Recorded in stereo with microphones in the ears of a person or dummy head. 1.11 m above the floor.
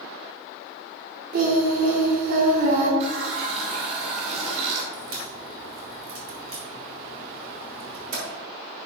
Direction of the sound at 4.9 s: 50° right (ahead or behind).